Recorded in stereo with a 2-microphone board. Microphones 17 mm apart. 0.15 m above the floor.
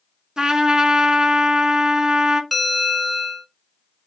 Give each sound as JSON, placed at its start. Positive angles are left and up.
{"t": 0.4, "sound": "a trumpet", "side_deg": -40, "distance_m": 0.6}
{"t": 2.5, "sound": "a bell", "side_deg": 0, "distance_m": 1.2}